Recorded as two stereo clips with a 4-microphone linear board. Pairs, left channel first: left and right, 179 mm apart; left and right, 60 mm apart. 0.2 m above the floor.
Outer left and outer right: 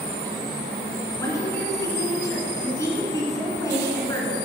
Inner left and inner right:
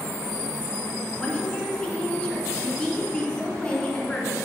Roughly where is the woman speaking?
Centre.